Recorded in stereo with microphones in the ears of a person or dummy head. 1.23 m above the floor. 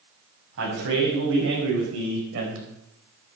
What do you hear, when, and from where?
0.6 s a man speaking: 75° right (ahead or behind), 7 m; by 2.7 s 80° right, 4.5 m